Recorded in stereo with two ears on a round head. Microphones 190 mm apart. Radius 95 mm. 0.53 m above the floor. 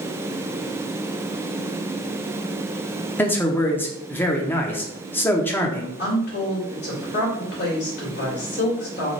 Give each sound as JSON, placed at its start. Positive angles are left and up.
{"t": 3.2, "sound": "a man speaking", "side_deg": 10, "distance_m": 0.8}
{"t": 6.0, "sound": "a woman speaking", "side_deg": 50, "distance_m": 2.5}